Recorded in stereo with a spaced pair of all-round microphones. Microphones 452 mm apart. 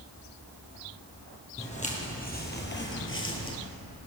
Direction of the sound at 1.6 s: 15° left (ahead or behind).